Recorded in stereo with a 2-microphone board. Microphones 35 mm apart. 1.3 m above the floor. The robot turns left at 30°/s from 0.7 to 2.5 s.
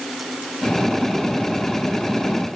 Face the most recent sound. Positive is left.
No sound to turn to.